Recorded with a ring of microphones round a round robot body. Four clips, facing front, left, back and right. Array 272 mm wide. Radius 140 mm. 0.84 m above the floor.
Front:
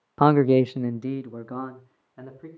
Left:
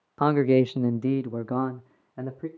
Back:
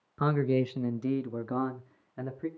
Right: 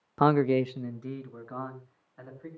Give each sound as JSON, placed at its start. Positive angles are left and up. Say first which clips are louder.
{"t": 0.2, "sound": "a man speaking", "louder": "left 3 dB, front 10 dB", "azimuth_deg": -10, "distance_m": 0.6}